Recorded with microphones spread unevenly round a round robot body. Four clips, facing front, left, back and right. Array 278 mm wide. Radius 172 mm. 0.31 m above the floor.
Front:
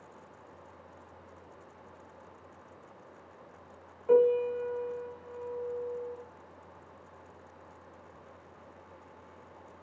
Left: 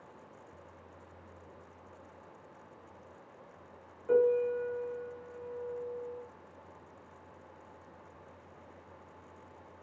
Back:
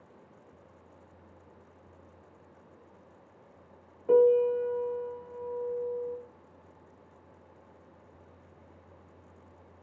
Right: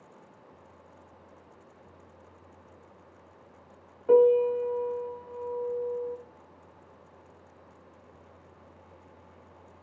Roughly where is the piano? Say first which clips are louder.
Right 7 dB, back 2 dB; behind right.